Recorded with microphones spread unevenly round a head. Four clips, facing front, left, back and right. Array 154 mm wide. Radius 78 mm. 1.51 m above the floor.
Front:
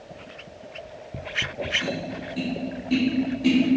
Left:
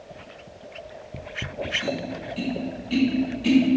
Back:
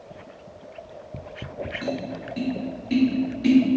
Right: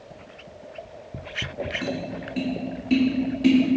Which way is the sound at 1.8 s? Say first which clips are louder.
Left 1 dB, back 1 dB; 105° right.